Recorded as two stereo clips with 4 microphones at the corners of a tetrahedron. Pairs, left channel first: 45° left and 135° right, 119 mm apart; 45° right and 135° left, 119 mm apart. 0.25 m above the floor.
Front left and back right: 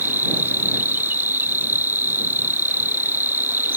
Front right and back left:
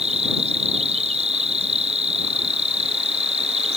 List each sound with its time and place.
0.0 s an insect: 155° left